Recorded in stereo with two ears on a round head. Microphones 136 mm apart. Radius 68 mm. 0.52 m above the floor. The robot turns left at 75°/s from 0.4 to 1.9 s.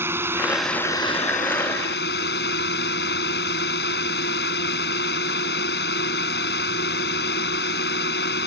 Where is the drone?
165° right; by 8.5 s 85° left.